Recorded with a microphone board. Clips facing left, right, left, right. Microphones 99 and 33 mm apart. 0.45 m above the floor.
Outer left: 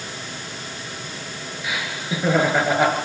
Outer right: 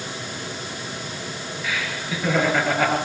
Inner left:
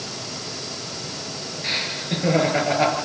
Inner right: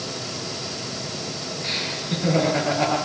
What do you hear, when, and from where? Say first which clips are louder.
1.6 s laughter: outer left 1 dB, inner left 2 dB; 15° left (ahead or behind), 7.5 m